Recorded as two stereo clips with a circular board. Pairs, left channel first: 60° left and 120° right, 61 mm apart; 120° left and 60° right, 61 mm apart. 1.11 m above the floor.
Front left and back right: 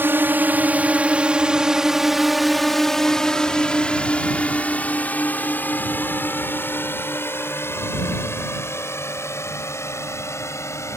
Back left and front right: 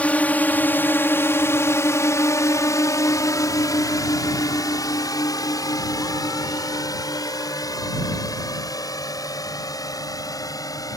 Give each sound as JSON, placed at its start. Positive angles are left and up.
{"t": 0.0, "sound": "a drone", "azimuth_deg": -170}